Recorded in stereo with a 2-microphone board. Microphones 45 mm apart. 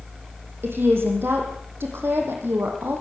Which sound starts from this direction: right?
A woman speaking, at 0.6 s.